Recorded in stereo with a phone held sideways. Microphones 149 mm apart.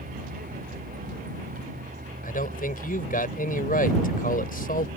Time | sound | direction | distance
0.0 | a vehicle | 85° right | ?
2.2 | a man speaking | 75° left (ahead or behind) | ?